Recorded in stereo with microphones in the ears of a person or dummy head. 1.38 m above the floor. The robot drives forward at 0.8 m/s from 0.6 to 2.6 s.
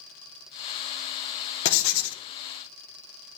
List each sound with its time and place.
1.6 s writing: 70° left (ahead or behind), 1.2 m; by 2.2 s 75° left (ahead or behind), 1.1 m